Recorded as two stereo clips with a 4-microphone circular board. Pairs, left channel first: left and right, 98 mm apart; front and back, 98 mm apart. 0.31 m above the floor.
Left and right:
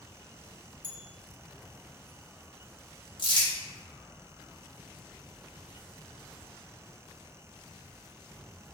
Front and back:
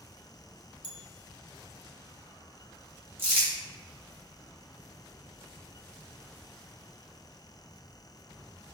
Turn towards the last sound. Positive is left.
turn(degrees=115)